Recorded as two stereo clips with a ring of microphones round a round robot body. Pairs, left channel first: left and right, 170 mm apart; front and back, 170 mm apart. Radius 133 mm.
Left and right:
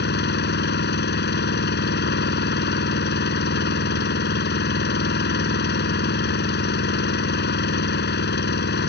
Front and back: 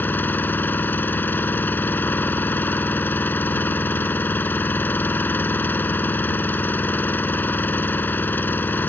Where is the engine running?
80° left.